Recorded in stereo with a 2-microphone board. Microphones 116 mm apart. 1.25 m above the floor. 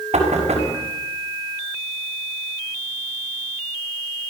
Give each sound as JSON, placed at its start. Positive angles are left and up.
{"t": 0.1, "sound": "knocking", "side_deg": -70, "distance_m": 5.5}